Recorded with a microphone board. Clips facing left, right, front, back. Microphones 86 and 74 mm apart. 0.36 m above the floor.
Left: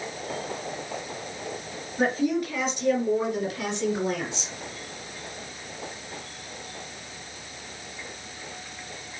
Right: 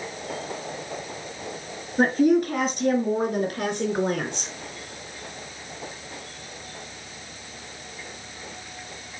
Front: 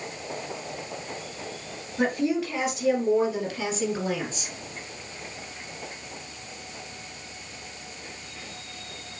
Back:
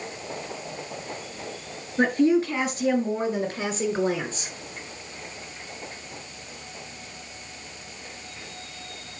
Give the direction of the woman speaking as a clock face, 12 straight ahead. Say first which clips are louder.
Right 6 dB, back 5 dB; 4 o'clock.